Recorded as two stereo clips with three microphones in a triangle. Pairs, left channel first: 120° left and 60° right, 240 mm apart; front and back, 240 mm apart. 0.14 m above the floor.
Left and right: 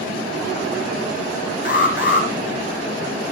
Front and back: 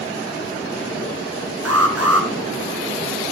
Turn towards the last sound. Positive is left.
turn(degrees=160)